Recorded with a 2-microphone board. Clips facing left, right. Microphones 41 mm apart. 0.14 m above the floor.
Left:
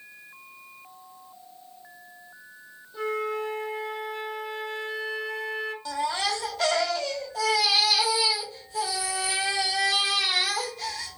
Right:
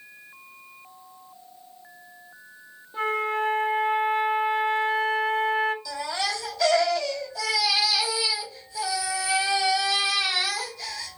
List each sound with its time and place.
2.9 s a flute: 35° right (ahead or behind), 0.6 m
5.8 s a baby crying: 50° left (ahead or behind), 1.9 m